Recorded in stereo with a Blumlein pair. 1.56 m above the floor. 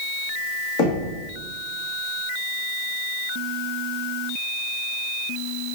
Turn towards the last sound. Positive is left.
turn(degrees=40)